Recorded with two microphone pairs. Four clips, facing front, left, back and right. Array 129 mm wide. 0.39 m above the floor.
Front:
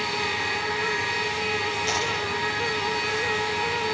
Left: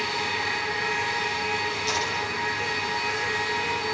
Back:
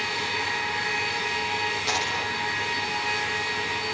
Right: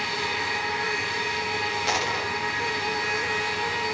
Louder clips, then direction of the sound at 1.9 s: Right 2 dB, front 1 dB; 105° right.